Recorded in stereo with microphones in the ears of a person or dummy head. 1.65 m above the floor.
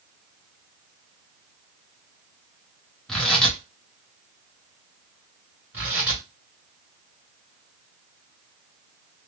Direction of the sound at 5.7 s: 10° right (ahead or behind).